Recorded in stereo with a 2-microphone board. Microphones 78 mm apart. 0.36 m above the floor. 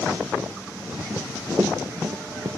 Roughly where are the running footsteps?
Right.